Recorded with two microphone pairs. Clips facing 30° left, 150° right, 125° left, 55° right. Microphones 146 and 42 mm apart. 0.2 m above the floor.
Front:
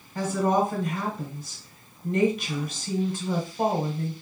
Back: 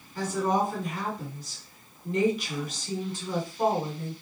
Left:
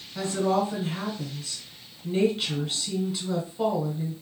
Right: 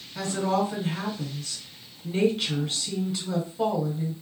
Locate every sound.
0.1 s a woman speaking: 40° left, 1.5 m